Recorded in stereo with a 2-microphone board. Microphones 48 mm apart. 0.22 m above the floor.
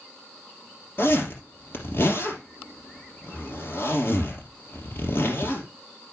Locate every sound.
1.0 s a zipper: 50° left (ahead or behind), 3 m